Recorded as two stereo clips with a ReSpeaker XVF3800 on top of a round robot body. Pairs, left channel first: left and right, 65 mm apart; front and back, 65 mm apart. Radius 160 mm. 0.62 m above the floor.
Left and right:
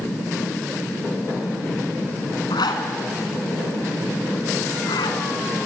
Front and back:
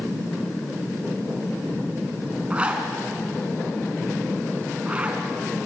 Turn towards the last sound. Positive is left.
turn(degrees=105)